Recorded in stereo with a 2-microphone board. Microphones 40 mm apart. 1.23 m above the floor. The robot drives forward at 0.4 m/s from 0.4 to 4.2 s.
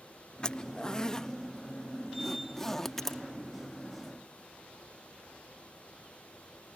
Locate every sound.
0.4 s a zipper: 25° left (ahead or behind); by 3.2 s 10° left (ahead or behind)